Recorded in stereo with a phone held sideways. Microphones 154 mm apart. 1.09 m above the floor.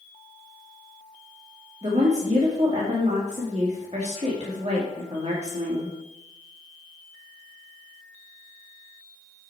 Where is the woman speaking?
45° right (ahead or behind), 1.8 m.